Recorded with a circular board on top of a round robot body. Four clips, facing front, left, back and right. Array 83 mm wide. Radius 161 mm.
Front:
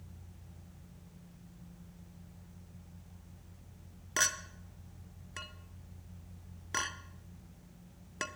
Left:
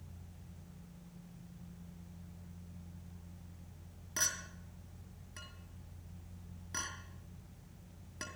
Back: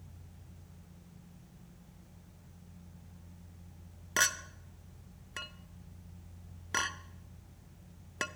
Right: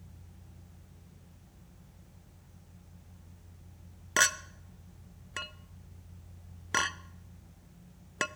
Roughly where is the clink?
Right.